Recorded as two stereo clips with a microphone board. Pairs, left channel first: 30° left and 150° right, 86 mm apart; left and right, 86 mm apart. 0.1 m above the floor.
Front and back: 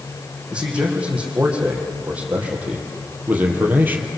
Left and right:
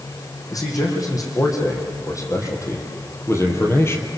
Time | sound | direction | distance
0.5 | a man speaking | 135° left | 6 m